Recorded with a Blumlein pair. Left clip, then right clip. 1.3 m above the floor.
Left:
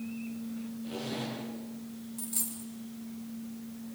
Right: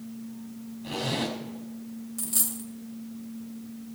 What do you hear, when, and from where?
0.8 s a zipper: 70° right, 5.5 m
2.2 s a dropped coin: 65° right, 2 m